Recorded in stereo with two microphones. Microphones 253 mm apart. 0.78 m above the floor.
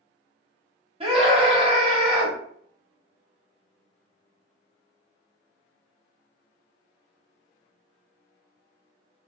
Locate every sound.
1.0 s a scream: 25° right (ahead or behind), 2.5 m